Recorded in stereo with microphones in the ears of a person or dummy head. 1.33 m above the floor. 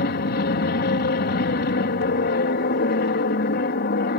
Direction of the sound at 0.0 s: 50° left (ahead or behind).